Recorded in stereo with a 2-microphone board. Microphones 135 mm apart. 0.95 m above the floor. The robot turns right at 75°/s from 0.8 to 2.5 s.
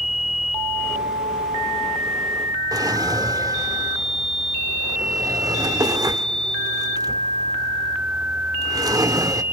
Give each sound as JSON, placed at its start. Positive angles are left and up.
{"t": 2.7, "sound": "a drawer", "side_deg": -25, "distance_m": 1.0}